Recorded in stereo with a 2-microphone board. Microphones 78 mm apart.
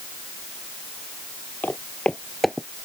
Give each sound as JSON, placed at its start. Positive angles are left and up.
{"t": 1.6, "sound": "footsteps", "side_deg": 20}